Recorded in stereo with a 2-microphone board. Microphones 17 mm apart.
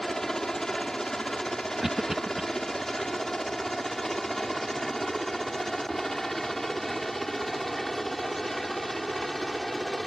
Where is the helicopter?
35° left (ahead or behind); by 10.1 s 15° left (ahead or behind).